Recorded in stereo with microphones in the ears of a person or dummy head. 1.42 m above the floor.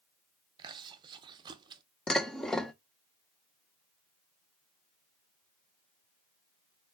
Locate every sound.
0.6 s chewing: 30° right (ahead or behind), 0.8 m
2.1 s dishes clattering: centre (ahead or behind), 0.7 m